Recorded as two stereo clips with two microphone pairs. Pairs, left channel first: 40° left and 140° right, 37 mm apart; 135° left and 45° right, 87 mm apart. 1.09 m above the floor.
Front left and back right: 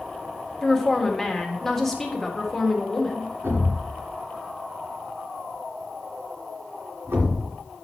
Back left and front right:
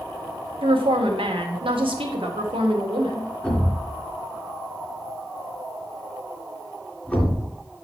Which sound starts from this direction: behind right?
A thud, at 3.4 s.